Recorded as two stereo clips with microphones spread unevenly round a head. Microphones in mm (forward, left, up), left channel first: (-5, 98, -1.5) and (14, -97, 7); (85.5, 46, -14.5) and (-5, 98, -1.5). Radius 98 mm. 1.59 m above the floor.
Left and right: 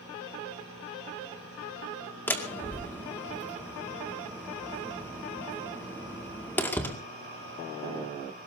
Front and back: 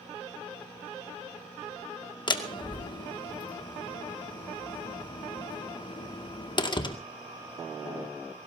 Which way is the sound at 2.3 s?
15° left.